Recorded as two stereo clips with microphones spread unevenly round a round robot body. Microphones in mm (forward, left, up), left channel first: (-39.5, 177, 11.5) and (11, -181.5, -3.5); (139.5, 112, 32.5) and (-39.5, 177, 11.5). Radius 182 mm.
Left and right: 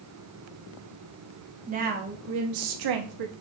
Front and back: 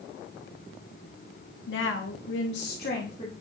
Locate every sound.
1.7 s a woman speaking: 10° right, 1.4 m; by 3.3 s 95° right, 1.1 m